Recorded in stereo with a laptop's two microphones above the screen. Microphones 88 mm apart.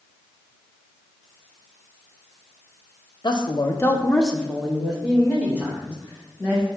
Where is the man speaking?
60° left (ahead or behind), 0.9 m; by 6.7 s 20° right (ahead or behind), 4 m.